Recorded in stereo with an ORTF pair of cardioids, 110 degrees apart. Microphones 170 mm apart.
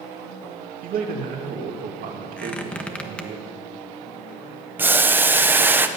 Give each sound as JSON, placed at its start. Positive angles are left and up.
{"t": 0.8, "sound": "a man speaking", "azimuth_deg": -60, "distance_m": 2.5}
{"t": 2.4, "sound": "a squeak", "azimuth_deg": 5, "distance_m": 1.3}
{"t": 4.8, "sound": "boiling", "azimuth_deg": -10, "distance_m": 0.9}